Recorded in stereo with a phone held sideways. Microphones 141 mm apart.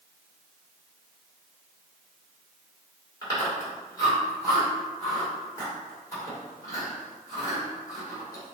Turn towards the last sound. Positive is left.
turn(degrees=25)  # may be behind; listen again after turning